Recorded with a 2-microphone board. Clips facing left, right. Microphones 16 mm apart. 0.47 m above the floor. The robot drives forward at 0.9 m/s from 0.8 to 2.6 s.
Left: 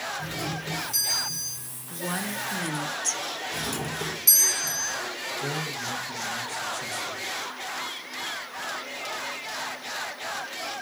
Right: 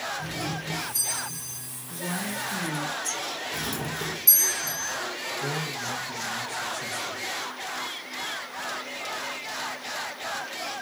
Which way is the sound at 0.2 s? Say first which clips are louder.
Even; 75° left (ahead or behind).